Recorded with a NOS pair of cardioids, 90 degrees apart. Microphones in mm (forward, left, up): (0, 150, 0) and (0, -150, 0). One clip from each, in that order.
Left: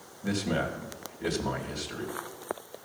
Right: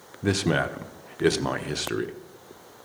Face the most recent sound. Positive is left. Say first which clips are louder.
# right 6 dB
turn(degrees=-70)